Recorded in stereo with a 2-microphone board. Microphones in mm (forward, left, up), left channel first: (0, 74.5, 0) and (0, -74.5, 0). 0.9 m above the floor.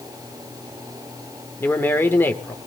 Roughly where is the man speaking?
Centre.